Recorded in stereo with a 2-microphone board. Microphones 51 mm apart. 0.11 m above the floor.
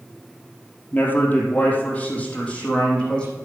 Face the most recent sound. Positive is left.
turn(degrees=15)  # may be behind; listen again after turning